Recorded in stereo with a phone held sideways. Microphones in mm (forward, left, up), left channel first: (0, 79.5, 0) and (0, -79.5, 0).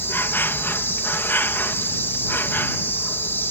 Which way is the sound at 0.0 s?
15° left (ahead or behind).